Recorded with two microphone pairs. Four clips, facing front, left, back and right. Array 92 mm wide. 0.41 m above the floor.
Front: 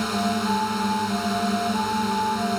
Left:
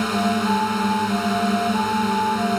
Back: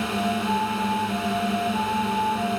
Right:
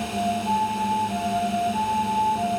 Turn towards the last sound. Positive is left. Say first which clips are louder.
# left 4 dB, front 1 dB
turn(degrees=85)